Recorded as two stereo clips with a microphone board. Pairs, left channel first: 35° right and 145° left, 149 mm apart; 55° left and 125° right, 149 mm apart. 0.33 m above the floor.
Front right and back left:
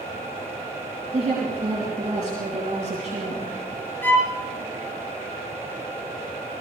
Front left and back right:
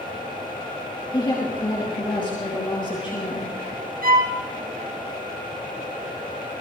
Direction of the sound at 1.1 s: 110° left.